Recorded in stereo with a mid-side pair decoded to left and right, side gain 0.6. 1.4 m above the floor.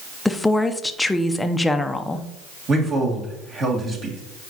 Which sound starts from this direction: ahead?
A woman speaking, at 0.2 s.